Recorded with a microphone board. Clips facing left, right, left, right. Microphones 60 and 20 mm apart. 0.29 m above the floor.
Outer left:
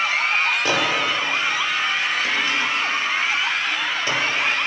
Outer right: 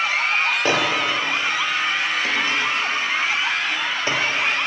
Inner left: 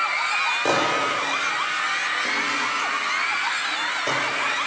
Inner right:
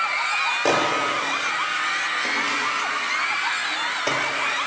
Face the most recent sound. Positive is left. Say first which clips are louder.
# outer right 1 dB, even
turn(degrees=-35)  # may be behind; listen again after turning